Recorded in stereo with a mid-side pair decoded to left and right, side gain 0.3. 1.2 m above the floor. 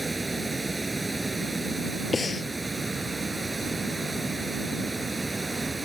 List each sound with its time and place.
0.0 s running water: 30° right
2.1 s breathing: 45° left